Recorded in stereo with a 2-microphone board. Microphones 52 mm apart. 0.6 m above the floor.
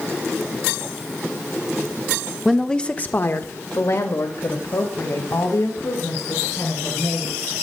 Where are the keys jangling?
No keys jangling in this recording.